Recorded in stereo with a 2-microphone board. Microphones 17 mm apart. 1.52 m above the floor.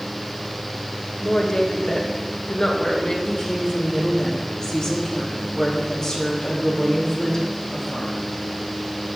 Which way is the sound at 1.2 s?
50° left (ahead or behind).